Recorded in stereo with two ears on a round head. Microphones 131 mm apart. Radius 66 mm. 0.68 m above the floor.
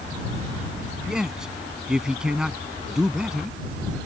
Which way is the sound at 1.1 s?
5° right (ahead or behind).